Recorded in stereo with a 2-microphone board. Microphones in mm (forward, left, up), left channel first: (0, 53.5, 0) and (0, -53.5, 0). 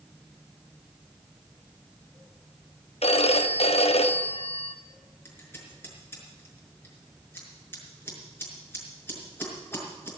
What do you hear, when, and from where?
3.0 s a phone ringing: 70° left (ahead or behind), 0.8 m
5.2 s scissors: 25° left (ahead or behind), 5 m